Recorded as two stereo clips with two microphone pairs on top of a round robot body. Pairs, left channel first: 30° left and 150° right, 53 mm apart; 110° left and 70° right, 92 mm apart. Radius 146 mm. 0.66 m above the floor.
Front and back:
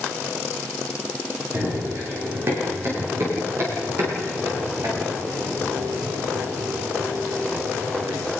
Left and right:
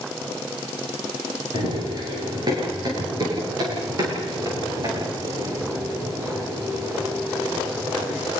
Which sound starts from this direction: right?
Running footsteps, at 1.5 s.